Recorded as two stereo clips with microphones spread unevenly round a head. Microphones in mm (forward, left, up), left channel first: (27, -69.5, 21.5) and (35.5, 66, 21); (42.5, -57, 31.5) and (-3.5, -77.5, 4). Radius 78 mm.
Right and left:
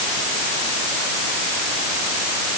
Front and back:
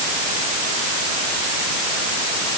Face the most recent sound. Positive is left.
No sound to turn to.